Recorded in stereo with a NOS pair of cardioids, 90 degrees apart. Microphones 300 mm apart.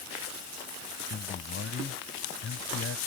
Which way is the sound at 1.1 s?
40° left.